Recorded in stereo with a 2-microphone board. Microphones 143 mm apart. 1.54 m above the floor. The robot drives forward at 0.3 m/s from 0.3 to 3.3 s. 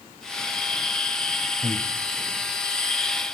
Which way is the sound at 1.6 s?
15° left (ahead or behind).